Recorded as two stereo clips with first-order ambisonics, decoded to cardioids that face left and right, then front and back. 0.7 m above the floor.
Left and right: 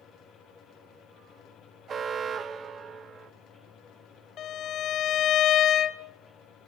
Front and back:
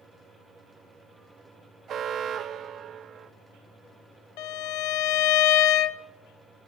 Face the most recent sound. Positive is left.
turn(degrees=30)